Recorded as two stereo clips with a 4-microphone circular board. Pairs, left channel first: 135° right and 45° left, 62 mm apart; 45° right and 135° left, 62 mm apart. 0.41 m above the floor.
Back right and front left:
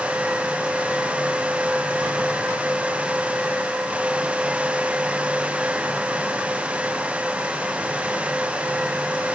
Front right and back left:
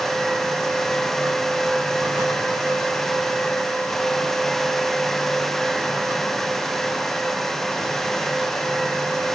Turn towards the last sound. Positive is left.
No sound to turn to.